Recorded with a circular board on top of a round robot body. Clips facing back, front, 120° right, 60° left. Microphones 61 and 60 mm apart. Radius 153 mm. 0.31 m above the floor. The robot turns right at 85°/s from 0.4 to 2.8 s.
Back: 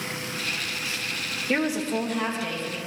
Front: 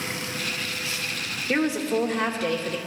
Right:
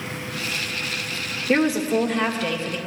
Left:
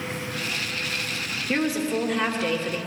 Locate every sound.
1.5 s a woman speaking: 75° right, 1.5 m; by 2.8 s 30° left, 1.5 m